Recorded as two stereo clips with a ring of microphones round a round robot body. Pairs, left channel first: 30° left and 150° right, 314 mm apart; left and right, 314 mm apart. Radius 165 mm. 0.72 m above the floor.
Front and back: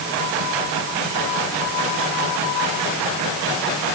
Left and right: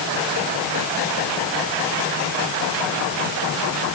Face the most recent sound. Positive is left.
No sound to turn to.